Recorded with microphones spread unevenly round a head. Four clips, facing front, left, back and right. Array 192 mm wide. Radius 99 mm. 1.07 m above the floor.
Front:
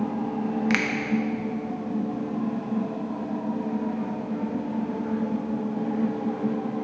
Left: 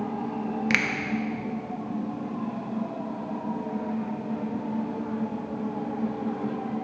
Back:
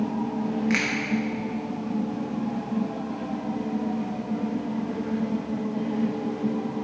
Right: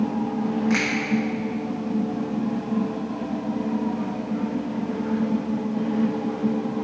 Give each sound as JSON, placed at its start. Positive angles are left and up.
{"t": 0.7, "sound": "a finger snap", "azimuth_deg": 80, "distance_m": 0.6}